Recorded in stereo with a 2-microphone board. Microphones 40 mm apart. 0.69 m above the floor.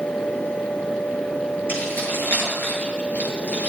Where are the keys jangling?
50° left (ahead or behind), 8 m; by 3.7 s 35° left (ahead or behind), 9 m.